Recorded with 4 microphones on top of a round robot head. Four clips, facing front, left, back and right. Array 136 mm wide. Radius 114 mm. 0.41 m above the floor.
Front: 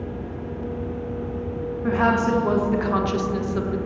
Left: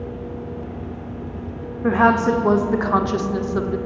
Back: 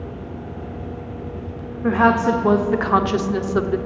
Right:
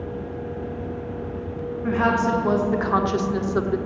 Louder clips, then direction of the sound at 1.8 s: Left 5 dB, back 4 dB; 120° left.